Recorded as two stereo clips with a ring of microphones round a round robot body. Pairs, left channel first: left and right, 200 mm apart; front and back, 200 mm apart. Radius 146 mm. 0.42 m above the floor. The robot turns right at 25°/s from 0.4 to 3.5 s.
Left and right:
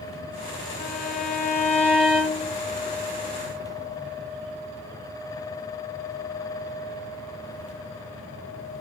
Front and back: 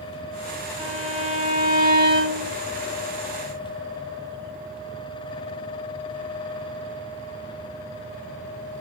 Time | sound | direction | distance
0.8 | a violin | 120° left | 1.8 m